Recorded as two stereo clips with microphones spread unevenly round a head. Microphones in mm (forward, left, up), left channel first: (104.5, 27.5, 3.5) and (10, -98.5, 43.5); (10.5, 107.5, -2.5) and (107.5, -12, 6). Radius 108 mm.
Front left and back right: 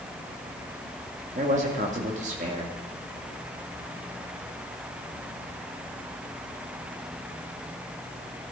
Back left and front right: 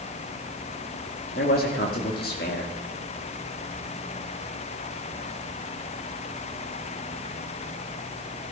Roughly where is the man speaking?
Behind.